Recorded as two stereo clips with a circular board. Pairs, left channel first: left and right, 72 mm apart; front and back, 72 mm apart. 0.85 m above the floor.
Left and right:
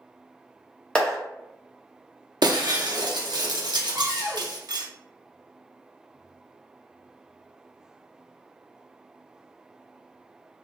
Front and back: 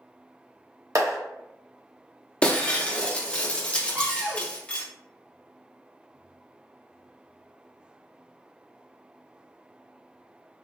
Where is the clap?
165° left, 0.8 m.